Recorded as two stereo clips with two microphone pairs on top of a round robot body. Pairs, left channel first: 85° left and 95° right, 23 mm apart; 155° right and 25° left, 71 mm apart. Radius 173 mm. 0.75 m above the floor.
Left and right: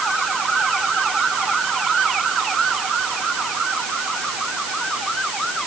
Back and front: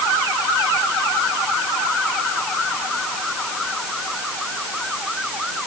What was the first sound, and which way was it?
Only background noise.